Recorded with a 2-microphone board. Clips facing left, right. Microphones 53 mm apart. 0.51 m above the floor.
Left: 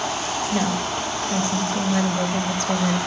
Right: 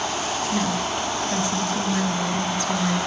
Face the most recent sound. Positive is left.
turn(degrees=55)  # may be behind; listen again after turning